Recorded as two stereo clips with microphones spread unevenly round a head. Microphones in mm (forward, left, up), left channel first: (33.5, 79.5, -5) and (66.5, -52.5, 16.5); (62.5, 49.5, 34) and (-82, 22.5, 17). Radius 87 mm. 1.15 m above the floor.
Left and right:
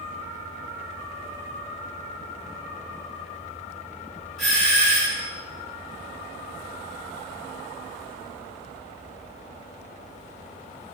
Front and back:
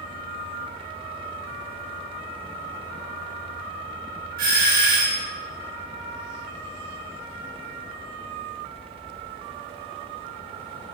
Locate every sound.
4.4 s a doorbell: 170° right, 2.5 m